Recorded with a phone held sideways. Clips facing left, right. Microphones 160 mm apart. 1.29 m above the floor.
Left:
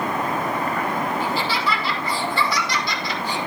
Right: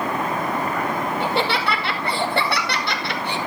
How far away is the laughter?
About 2.5 m.